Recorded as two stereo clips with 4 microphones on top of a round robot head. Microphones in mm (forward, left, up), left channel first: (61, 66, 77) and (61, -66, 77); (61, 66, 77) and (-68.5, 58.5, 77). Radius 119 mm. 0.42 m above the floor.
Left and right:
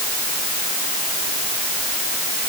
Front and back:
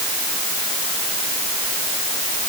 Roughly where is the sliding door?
I don't hear a sliding door.